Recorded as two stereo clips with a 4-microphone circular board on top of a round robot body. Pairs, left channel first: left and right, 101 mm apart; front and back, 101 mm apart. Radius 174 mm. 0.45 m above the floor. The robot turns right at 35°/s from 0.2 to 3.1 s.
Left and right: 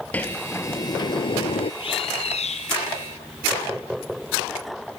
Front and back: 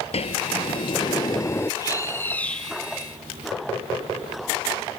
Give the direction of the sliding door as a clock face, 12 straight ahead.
12 o'clock.